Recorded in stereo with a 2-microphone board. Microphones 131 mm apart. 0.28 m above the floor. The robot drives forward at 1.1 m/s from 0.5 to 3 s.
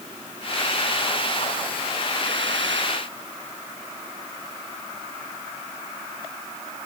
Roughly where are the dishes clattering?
No dishes clattering in this recording.